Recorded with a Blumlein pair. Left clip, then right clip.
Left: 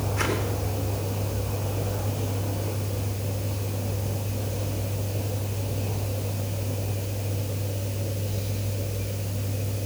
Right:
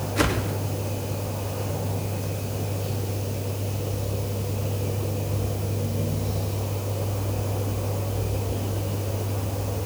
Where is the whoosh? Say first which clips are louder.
Right 3 dB; 50° right, 2.5 m.